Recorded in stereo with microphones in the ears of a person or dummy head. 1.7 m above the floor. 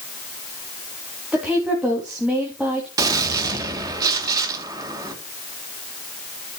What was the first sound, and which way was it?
A woman speaking, 5° right (ahead or behind).